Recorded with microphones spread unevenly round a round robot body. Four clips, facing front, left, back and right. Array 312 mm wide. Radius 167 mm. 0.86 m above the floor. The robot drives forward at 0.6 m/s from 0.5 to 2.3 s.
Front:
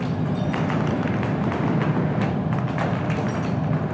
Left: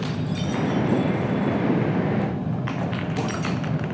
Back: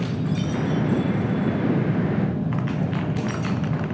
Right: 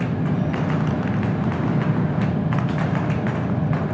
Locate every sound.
Only background noise.